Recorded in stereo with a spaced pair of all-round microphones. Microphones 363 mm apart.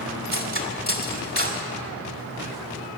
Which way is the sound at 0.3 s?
25° left (ahead or behind).